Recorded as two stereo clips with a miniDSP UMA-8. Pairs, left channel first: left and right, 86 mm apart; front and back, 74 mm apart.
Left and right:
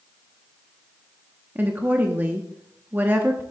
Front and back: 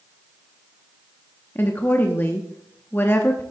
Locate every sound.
1.6 s a woman speaking: 40° right, 0.9 m